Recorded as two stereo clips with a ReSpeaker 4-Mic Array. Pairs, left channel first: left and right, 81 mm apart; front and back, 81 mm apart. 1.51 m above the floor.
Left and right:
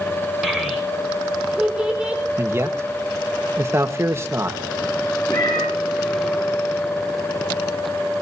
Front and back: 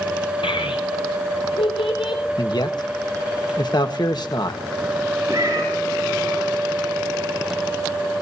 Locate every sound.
0.4 s a child speaking: 5° right, 5.5 m; by 2.2 s 15° right, 7 m
2.4 s a man speaking: 35° right, 1.5 m
5.3 s a cat meowing: 125° left, 6 m